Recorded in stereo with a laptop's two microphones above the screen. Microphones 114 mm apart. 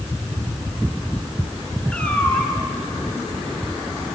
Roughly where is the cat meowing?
Centre.